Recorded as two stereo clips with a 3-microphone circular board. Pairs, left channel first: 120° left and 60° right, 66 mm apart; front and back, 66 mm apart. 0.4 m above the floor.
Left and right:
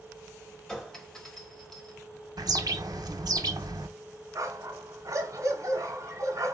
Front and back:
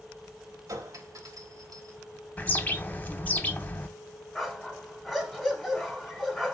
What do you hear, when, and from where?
0.7 s a clink: 160° right, 1.0 m
2.4 s a bird: 65° right, 0.6 m
4.3 s a dog barking: 90° right, 1.1 m